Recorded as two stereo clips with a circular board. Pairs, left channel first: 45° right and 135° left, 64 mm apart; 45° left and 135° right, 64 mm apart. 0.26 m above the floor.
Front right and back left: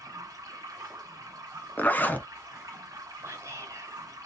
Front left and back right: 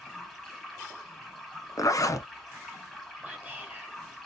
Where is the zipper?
15° left, 0.7 m.